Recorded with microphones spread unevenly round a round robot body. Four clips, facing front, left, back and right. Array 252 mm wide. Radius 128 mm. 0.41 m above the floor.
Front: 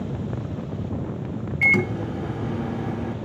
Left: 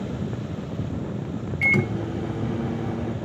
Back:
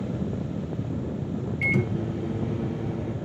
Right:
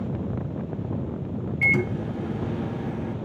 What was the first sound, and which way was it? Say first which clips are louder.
A microwave: left 1 dB, front 5 dB; 5° left.